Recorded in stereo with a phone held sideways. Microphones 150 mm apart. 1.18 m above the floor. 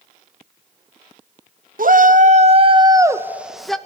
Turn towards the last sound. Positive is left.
turn(degrees=5)  # may be behind; listen again after turning